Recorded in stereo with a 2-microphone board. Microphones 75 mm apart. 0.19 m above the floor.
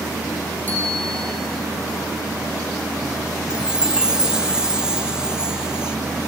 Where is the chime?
10° right (ahead or behind), 1.6 m.